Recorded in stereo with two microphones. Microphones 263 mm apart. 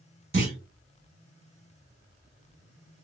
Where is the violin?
I don't hear a violin.